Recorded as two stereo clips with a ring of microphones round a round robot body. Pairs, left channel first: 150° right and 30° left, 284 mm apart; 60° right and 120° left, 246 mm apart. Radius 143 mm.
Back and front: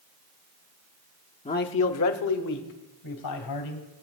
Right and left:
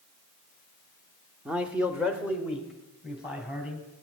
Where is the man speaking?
160° right, 0.7 m; by 3.8 s 155° right, 3 m.